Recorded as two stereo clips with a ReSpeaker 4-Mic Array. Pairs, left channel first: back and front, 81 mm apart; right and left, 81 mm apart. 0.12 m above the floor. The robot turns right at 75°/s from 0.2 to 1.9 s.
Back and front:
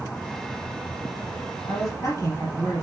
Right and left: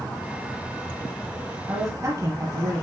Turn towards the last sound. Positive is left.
turn(degrees=125)